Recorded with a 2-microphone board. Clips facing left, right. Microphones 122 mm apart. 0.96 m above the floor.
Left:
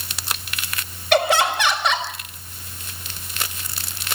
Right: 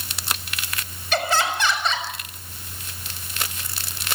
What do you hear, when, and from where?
1.1 s laughter: 70° left (ahead or behind), 5 m